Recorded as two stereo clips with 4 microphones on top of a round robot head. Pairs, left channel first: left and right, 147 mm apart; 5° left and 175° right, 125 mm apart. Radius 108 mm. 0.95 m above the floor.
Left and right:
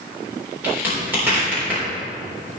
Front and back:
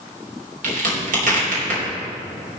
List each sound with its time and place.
0.6 s a crack: 170° right, 4 m